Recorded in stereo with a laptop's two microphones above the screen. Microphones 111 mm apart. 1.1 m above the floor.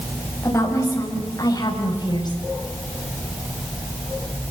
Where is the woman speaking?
25° left (ahead or behind), 7 m; by 2.4 s 45° left (ahead or behind), 6.5 m.